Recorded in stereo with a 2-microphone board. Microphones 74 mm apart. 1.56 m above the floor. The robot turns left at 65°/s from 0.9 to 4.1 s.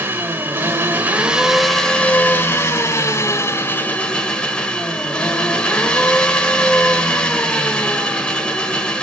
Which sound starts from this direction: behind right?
An engine running, at 0.0 s.